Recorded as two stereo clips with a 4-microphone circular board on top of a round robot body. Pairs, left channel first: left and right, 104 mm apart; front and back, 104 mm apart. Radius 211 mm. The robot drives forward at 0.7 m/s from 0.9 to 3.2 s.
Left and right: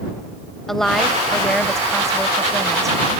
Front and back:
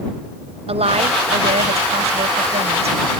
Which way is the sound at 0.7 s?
175° left.